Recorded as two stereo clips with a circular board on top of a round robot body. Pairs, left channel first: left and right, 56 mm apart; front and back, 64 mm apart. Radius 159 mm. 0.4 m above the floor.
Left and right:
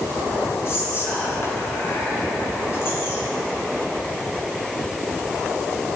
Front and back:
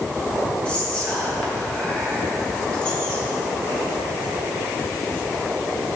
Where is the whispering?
70° left, 1.9 m.